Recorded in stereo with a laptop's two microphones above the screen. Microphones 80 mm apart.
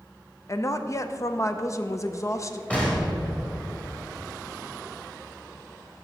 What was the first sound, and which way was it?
A woman speaking, 40° left (ahead or behind).